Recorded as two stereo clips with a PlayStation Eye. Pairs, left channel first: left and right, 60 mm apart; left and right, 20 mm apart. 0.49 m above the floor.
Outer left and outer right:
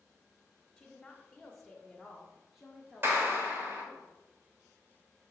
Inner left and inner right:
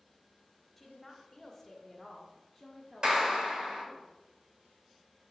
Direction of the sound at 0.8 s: 10° left (ahead or behind).